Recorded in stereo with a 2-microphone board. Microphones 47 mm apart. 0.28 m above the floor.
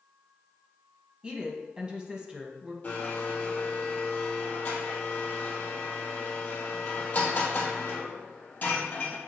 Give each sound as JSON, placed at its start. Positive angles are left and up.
{"t": 1.2, "sound": "a woman speaking", "side_deg": -20, "distance_m": 1.6}
{"t": 2.8, "sound": "a blender", "side_deg": 35, "distance_m": 2.5}